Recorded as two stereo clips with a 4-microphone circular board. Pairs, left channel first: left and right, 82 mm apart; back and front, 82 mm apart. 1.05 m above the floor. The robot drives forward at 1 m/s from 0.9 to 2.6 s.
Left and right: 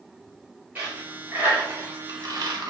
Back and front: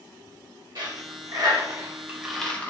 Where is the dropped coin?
20° right, 1.6 m; by 2.7 s 115° right, 0.8 m.